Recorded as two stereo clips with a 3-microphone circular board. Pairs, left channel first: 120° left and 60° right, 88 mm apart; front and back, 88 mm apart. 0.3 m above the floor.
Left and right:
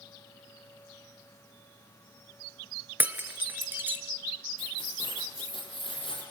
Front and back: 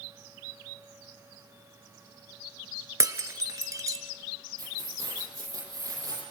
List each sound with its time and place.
3.0 s breaking glass: 130° right, 1.9 m
4.6 s keys jangling: 130° left, 8 m